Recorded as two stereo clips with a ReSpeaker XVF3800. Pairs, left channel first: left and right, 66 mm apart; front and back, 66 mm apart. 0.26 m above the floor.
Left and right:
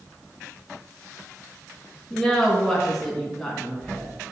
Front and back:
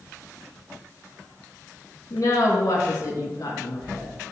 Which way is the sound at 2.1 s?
10° left.